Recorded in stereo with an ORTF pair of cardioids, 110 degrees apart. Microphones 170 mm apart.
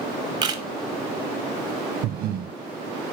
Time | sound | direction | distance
0.4 | a camera shutter | 25° right | 0.5 m
2.0 | breathing | 65° right | 0.5 m